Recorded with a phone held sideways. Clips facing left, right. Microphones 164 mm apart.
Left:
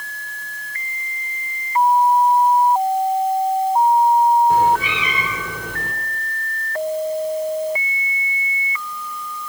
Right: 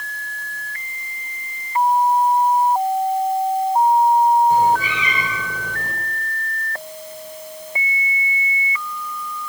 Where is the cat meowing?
60° left (ahead or behind), 5 m.